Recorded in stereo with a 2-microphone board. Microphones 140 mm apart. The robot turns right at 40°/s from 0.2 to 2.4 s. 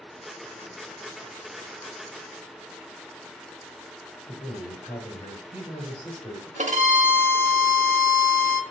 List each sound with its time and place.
4.3 s a man speaking: 45° left (ahead or behind), 1.4 m
6.6 s a violin: 60° right (ahead or behind), 0.7 m